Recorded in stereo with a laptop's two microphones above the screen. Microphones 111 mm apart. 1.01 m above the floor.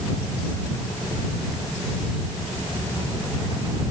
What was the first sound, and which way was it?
Only background noise.